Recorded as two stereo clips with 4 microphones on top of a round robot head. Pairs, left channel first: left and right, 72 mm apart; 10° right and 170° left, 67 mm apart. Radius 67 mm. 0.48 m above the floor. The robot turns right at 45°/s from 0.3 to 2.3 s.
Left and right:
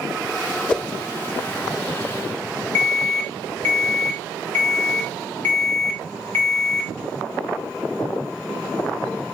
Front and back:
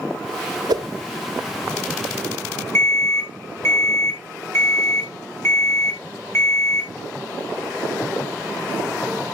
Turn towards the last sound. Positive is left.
turn(degrees=30)